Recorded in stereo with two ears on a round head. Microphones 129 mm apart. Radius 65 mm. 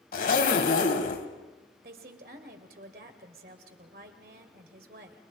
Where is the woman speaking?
70° right (ahead or behind), 2.5 m.